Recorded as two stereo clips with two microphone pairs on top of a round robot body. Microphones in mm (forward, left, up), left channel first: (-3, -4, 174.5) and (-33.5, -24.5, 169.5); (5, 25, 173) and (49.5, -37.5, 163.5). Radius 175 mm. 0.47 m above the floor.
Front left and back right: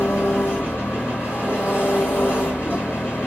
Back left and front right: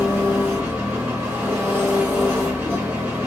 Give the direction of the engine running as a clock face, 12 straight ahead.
12 o'clock.